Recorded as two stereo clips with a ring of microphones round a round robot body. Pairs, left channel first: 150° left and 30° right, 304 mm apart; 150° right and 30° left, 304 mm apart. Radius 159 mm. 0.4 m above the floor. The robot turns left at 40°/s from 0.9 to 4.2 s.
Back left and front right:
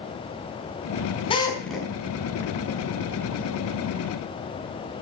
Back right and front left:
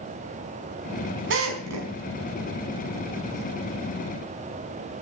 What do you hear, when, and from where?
1.3 s a drill: 80° left, 4.5 m; by 1.9 s 55° left, 4.5 m